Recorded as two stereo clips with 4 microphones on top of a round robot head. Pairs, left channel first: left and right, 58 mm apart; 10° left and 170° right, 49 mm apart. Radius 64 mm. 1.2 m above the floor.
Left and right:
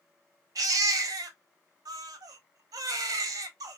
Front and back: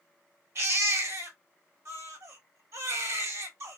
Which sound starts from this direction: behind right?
A baby crying, at 0.6 s.